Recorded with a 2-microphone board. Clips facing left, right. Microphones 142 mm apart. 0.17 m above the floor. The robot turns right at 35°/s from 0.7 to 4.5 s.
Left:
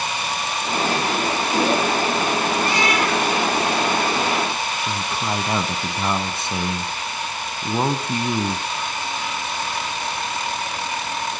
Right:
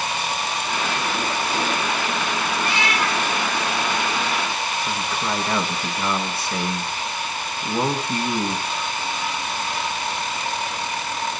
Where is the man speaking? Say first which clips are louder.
Left 1 dB; 25° left (ahead or behind), 1.5 m.